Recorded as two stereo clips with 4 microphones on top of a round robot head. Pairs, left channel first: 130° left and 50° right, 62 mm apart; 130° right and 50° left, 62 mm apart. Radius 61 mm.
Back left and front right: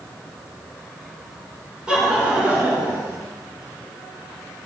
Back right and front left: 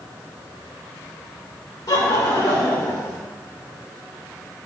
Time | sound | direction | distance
1.9 | laughter | 125° right | 3.5 m